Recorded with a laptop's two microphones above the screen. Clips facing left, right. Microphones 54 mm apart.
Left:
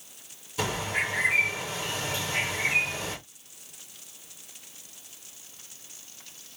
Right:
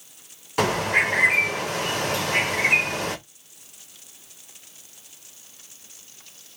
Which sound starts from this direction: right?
A bird, at 0.6 s.